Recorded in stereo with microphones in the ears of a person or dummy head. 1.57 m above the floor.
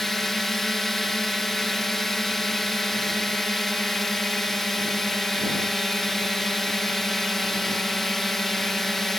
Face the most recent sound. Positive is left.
turn(degrees=0)  # may be behind; listen again after turning